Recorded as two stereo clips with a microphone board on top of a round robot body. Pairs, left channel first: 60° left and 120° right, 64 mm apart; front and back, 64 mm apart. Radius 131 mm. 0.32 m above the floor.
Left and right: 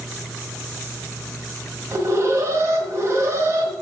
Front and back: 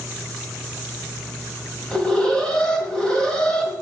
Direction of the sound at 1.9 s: 75° right.